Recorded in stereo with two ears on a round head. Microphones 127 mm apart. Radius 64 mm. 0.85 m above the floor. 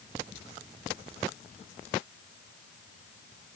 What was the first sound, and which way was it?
Only background noise.